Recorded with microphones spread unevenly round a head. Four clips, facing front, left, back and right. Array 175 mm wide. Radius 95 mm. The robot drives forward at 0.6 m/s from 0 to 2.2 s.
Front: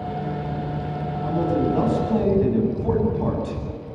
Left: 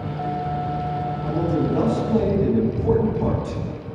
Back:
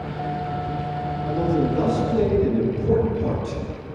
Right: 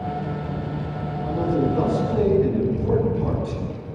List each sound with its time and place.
1.2 s a man speaking: 35° left, 8.5 m